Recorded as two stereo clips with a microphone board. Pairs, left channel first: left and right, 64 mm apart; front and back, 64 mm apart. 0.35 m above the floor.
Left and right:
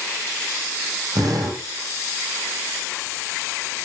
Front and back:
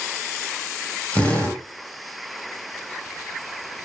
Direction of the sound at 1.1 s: 70° right.